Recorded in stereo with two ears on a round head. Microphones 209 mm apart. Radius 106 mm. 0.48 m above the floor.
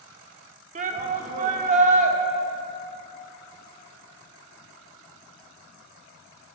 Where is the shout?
30° right (ahead or behind), 0.8 m.